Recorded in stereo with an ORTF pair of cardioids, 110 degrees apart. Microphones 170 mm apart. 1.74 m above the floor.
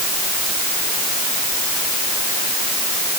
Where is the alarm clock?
No alarm clock in this recording.